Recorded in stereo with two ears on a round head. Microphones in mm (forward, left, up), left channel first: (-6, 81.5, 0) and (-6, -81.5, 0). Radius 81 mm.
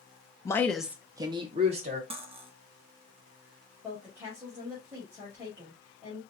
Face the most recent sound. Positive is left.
turn(degrees=-15)  # may be behind; listen again after turning